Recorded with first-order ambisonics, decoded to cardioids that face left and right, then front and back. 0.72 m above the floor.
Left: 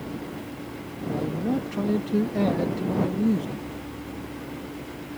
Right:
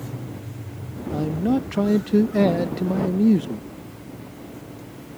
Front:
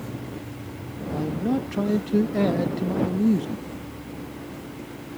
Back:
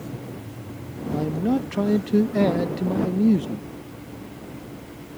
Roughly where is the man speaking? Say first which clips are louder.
Right 4 dB, back 2 dB; right.